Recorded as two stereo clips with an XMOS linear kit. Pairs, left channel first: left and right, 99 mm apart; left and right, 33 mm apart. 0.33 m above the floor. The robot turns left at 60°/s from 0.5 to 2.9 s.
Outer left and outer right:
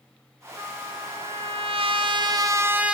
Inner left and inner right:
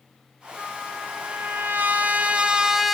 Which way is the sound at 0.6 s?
30° right.